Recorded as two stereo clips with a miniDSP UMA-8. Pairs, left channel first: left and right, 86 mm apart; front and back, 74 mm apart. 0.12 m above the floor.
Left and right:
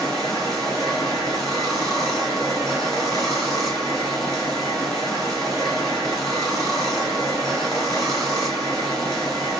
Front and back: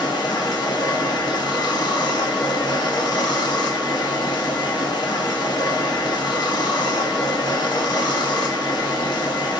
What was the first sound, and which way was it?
Running water, straight ahead.